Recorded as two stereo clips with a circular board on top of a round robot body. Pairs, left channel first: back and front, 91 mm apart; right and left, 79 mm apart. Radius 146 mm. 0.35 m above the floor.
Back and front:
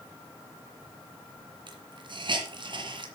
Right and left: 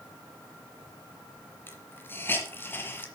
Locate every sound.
1.7 s a hiss: 25° right, 2 m